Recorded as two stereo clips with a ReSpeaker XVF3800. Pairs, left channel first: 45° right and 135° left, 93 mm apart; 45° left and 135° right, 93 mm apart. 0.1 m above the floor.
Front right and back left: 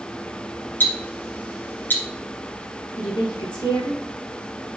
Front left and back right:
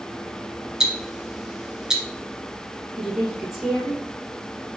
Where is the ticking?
65° right, 1.5 m.